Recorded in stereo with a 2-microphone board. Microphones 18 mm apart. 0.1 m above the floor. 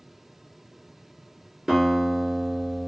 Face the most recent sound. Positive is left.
turn(degrees=-25)  # may be behind; listen again after turning